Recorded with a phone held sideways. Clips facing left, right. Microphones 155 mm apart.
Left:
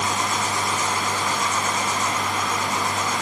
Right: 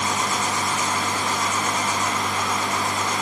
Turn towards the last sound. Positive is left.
No sound to turn to.